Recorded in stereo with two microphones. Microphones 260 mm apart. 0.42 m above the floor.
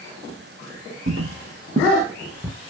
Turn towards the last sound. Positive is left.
turn(degrees=0)  # may be behind; listen again after turning